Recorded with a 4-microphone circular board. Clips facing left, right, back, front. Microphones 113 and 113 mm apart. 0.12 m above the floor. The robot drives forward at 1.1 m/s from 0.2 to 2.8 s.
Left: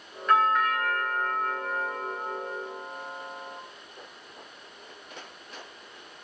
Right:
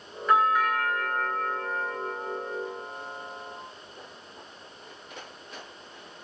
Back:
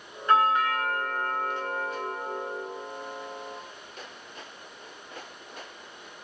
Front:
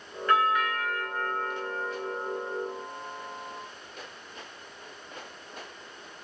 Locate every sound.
0.3 s a doorbell: 165° right, 1.9 m; by 3.6 s 175° right, 4 m